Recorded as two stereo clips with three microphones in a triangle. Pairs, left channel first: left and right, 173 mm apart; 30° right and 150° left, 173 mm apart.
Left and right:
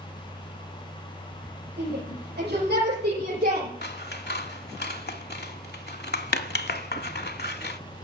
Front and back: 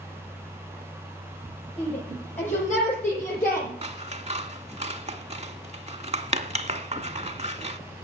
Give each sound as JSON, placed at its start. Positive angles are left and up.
{"t": 1.8, "sound": "a shout", "azimuth_deg": -80, "distance_m": 8.5}
{"t": 3.8, "sound": "scissors", "azimuth_deg": 100, "distance_m": 0.6}